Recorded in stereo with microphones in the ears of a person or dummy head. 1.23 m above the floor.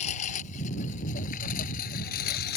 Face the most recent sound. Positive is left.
turn(degrees=60)  # may be behind; listen again after turning